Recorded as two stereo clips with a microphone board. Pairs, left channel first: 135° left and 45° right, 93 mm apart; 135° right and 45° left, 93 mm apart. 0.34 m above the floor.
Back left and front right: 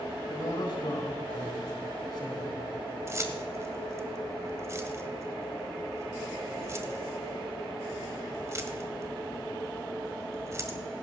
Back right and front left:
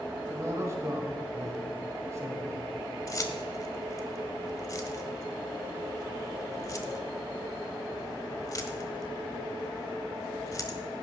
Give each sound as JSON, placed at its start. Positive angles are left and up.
{"t": 0.3, "sound": "a man speaking", "azimuth_deg": 100, "distance_m": 3.5}
{"t": 3.1, "sound": "keys jangling", "azimuth_deg": -95, "distance_m": 1.3}